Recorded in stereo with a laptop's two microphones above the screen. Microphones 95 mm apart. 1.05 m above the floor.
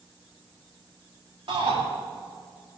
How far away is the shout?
About 3 m.